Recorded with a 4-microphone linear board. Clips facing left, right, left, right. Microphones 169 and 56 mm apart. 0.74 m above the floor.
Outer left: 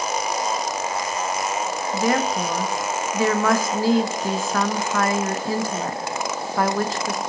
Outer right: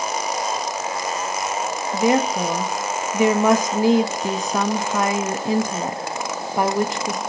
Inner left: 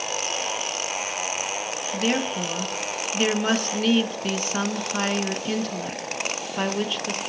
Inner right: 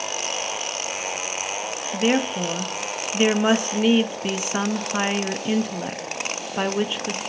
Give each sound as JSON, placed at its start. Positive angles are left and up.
{"t": 1.9, "sound": "a woman speaking", "side_deg": -20, "distance_m": 0.5}